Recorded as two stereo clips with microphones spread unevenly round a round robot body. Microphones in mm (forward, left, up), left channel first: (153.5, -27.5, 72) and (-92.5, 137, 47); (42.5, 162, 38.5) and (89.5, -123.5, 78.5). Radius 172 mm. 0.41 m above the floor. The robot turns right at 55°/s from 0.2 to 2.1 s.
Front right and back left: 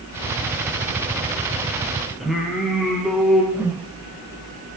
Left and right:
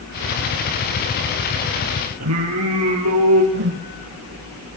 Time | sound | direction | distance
2.2 | singing | 125° right | 5 m
3.5 | a whoosh | 135° right | 1.7 m